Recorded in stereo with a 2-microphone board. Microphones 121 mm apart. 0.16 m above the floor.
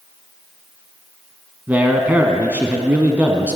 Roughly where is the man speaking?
Centre.